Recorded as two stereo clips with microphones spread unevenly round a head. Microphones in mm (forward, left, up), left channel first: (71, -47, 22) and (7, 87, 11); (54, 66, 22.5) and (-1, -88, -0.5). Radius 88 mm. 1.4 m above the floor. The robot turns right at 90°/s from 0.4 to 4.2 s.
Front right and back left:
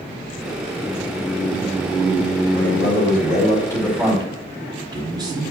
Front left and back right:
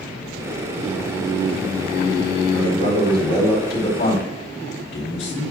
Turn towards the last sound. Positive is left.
turn(degrees=50)